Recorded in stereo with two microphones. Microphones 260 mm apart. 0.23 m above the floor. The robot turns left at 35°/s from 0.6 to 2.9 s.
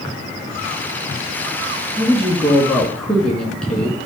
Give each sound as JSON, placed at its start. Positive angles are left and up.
{"t": 2.0, "sound": "a woman speaking", "azimuth_deg": -150, "distance_m": 2.0}